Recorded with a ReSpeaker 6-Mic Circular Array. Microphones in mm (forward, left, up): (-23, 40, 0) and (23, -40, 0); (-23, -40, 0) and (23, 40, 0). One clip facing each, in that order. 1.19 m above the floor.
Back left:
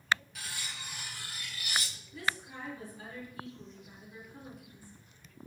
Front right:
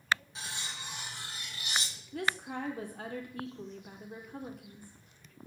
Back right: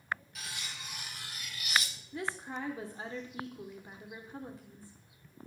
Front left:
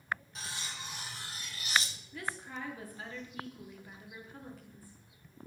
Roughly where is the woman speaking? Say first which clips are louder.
Front right 3 dB, back right 3 dB; ahead right.